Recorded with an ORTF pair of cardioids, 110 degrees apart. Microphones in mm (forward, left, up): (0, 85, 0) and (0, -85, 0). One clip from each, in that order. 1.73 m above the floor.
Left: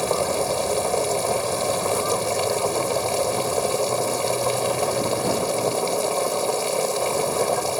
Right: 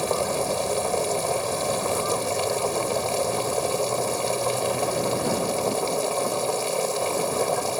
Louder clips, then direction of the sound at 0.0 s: Left 2 dB; 10° left.